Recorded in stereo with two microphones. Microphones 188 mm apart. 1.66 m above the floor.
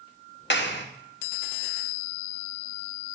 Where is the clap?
70° left (ahead or behind), 1.1 m.